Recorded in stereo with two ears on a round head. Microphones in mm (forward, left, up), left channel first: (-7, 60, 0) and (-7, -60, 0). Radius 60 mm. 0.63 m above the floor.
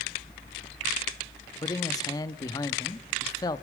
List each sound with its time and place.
1.6 s a man speaking: 25° left (ahead or behind), 0.6 m